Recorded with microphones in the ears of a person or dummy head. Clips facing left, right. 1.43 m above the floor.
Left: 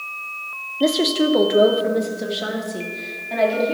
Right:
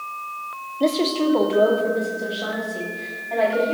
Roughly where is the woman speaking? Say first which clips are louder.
Left 2 dB; centre.